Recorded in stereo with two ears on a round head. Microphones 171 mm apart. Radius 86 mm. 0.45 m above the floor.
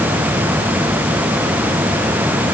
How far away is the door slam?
I don't hear a door slam.